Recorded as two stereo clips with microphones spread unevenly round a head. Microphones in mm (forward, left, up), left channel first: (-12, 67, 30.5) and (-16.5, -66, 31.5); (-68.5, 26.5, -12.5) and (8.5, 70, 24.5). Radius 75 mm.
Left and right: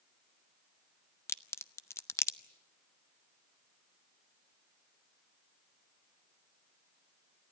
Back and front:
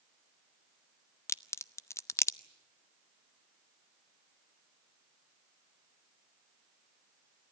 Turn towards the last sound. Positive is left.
turn(degrees=160)